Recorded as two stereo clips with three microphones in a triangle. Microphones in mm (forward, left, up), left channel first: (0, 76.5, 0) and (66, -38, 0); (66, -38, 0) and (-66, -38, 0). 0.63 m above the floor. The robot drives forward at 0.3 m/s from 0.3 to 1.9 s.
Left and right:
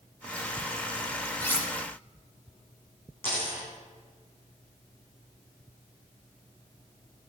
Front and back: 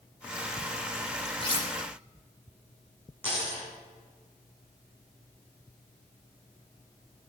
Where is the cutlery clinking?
40° left, 0.8 m; by 1.7 s 45° left, 0.7 m.